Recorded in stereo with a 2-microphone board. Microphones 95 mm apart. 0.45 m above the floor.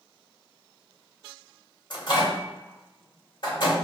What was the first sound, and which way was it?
A microwave, 50° left (ahead or behind).